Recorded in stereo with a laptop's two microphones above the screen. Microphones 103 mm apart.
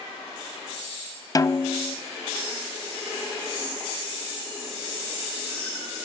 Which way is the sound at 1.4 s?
35° left (ahead or behind).